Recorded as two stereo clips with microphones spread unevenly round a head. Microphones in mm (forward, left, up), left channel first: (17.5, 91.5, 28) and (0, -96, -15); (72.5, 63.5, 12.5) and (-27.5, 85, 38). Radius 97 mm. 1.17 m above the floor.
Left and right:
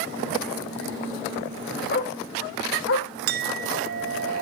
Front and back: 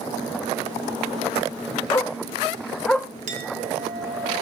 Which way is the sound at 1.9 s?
50° left.